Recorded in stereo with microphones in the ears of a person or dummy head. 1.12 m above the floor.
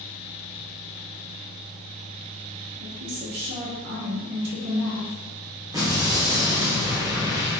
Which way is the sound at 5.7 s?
15° right (ahead or behind).